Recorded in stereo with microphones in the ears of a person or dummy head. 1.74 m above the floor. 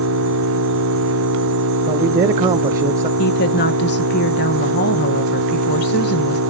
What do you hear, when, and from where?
0.0 s an engine running: 80° right, 1.4 m
1.9 s a man speaking: 20° right (ahead or behind), 0.6 m
3.2 s a woman speaking: 55° left (ahead or behind), 1.2 m